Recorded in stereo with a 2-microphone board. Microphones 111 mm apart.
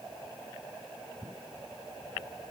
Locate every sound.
Only background noise.